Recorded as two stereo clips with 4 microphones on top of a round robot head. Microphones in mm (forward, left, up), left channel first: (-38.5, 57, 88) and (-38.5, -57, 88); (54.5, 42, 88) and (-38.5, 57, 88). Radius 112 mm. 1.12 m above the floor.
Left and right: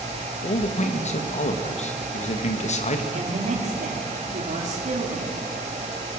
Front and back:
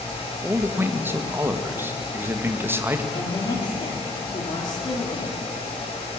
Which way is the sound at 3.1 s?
60° right.